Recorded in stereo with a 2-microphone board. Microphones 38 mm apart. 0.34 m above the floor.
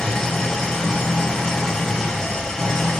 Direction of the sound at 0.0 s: 20° left (ahead or behind).